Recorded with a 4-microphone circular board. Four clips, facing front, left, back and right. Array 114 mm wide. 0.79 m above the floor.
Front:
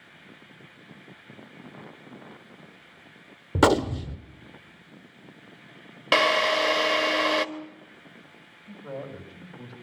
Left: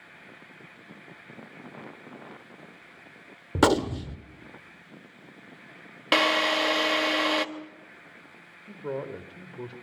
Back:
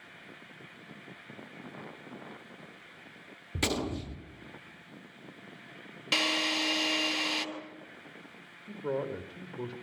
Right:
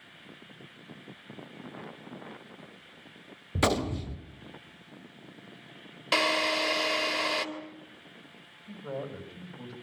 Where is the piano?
I don't hear a piano.